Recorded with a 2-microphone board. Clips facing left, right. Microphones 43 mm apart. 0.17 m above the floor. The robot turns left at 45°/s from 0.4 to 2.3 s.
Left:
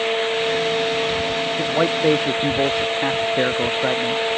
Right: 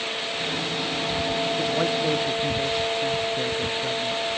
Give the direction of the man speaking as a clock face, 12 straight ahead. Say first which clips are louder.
Left 5 dB; 7 o'clock.